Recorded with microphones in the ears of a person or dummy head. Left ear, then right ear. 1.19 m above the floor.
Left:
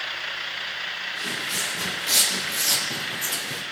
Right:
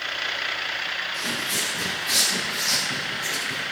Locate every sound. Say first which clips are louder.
1.1 s footsteps: right 1 dB; 20° right (ahead or behind), 1.6 m; by 3.6 s 45° left (ahead or behind), 3 m